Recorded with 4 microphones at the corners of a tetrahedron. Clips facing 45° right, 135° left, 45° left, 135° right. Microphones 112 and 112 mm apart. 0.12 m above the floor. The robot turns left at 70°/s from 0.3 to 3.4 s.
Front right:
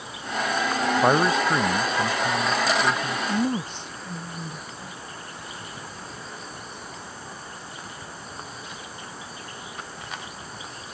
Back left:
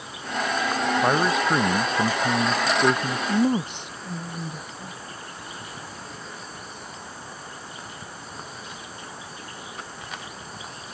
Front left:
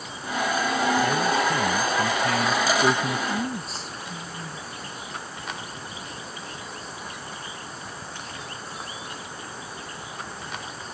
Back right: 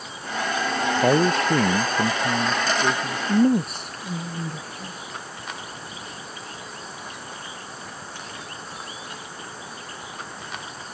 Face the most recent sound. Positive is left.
turn(degrees=-155)